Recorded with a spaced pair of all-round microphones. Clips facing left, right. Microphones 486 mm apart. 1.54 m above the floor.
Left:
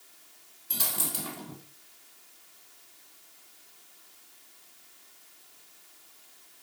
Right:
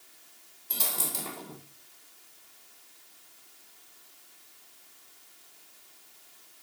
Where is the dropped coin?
35° left (ahead or behind), 2 m.